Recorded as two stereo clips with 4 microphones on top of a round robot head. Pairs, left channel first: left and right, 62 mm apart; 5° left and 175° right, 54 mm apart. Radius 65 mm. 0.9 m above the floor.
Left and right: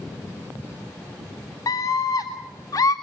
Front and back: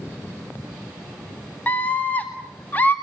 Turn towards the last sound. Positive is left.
turn(degrees=60)